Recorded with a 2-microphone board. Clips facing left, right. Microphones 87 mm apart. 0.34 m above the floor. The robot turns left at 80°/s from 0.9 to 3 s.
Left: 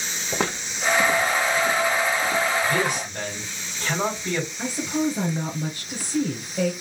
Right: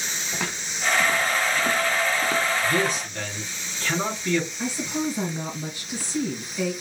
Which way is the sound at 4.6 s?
50° left (ahead or behind).